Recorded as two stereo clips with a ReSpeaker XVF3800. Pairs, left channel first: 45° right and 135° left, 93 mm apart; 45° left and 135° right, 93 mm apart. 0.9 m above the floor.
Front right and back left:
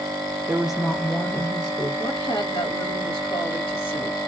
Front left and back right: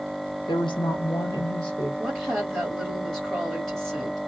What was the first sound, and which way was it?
A woman speaking, 65° left.